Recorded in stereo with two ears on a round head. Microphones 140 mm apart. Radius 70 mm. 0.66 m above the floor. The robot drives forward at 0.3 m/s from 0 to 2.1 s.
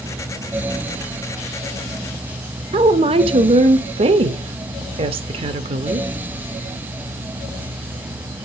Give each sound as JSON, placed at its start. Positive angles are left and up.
{"t": 2.7, "sound": "a woman speaking", "side_deg": -35, "distance_m": 0.7}